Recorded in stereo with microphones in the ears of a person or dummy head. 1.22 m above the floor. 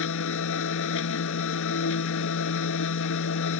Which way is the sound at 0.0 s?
75° left (ahead or behind).